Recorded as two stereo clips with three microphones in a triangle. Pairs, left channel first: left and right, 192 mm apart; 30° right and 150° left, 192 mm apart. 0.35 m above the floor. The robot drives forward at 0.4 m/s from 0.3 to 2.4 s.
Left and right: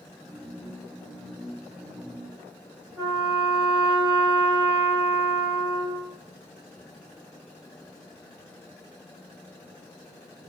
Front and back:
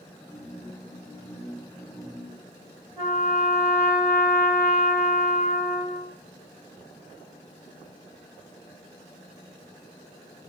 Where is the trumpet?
155° right, 1.0 m.